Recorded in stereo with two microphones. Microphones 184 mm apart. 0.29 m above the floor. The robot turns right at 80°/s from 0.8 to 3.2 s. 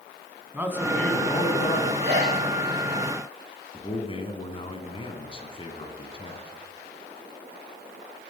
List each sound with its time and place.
0.5 s a man speaking: 10° right, 2.5 m; by 1.9 s 80° left, 2.5 m
2.0 s a sneeze: 70° right (ahead or behind), 6 m; by 2.4 s 45° right (ahead or behind), 6 m
3.7 s a man speaking: 30° left (ahead or behind), 2 m